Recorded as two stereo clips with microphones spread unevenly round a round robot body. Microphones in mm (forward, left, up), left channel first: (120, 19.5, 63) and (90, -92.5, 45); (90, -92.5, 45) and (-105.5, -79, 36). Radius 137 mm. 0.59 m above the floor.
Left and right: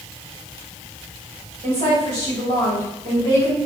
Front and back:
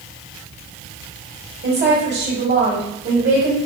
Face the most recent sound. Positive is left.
turn(degrees=-160)